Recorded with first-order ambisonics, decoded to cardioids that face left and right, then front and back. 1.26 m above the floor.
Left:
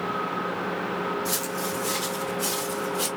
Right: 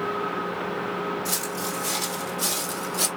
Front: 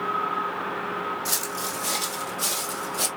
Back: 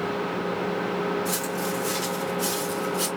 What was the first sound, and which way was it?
Footsteps, 5° right.